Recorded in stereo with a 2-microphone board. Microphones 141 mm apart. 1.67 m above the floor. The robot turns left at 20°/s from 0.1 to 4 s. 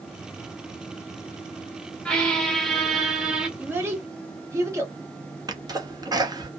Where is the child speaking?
15° right (ahead or behind), 1.1 m; by 5.0 s 20° right (ahead or behind), 1.1 m.